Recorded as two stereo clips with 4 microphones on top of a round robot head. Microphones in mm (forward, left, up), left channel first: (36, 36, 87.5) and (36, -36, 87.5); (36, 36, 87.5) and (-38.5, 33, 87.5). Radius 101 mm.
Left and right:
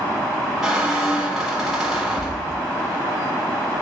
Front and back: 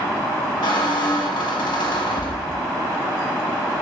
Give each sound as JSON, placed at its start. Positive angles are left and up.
{"t": 0.6, "sound": "a squeak", "azimuth_deg": -10, "distance_m": 0.7}